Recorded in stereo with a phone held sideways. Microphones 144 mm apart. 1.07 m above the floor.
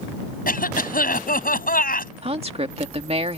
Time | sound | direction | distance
0.5 | a cough | 85° left | ?
2.2 | a woman speaking | 45° right (ahead or behind) | ?